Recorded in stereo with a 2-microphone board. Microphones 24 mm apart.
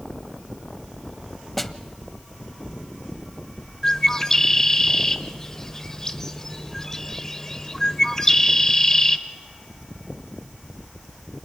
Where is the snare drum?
10° left (ahead or behind), 0.7 m.